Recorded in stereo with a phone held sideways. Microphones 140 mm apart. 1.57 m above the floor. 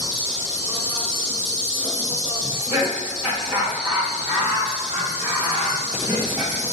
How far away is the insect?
About 1.4 m.